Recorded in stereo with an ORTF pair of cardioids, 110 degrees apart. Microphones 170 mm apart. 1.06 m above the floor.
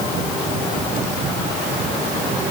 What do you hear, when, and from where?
Only background noise.